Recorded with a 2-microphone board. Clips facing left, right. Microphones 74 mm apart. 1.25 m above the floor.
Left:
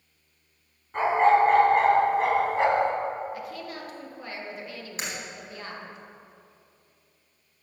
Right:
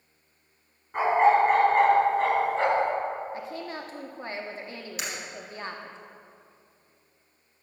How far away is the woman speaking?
About 0.9 m.